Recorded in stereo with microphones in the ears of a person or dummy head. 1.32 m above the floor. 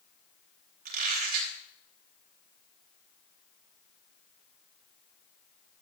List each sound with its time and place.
0.8 s a squeak: 50° right (ahead or behind), 3 m